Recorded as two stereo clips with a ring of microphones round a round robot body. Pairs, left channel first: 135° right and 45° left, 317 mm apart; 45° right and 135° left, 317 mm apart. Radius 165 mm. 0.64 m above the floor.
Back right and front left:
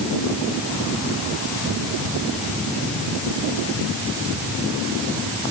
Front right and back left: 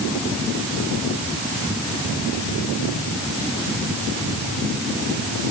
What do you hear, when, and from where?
Only background noise.